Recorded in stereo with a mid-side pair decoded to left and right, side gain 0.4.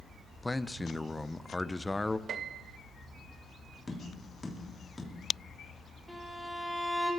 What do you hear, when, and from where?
0.4 s a man speaking: 15° left, 0.8 m
2.3 s a piano: 65° right, 0.8 m
3.9 s tapping: 25° left, 3 m
6.1 s a violin: 5° right, 5 m